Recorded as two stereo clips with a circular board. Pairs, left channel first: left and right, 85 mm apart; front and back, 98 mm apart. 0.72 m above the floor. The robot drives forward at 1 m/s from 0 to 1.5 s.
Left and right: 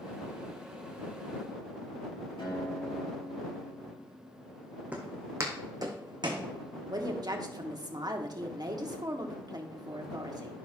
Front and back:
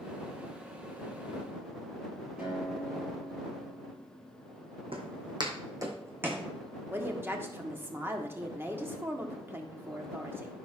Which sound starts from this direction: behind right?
A woman speaking, at 6.9 s.